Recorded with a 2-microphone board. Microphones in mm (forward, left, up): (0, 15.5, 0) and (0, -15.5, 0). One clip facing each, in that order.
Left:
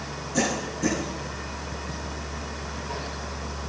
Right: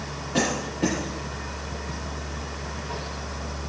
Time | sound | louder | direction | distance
0.3 | a cough | right 1 dB | 45° right (ahead or behind) | 7.5 m